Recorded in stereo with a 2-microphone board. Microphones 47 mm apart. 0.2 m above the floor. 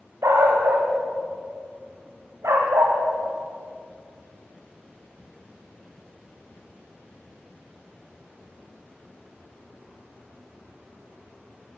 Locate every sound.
0.2 s a dog barking: 80° right, 6 m